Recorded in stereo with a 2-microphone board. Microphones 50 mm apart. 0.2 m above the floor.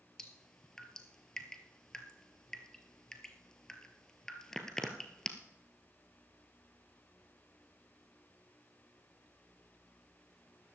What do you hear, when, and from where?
0.2 s dripping: 10° left (ahead or behind), 1.4 m